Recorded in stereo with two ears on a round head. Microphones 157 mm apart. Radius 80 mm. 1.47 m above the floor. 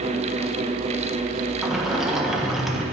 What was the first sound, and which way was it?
A sliding door, centre (ahead or behind).